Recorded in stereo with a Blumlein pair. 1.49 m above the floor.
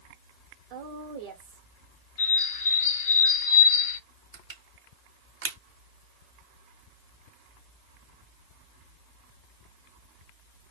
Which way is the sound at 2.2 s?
45° left.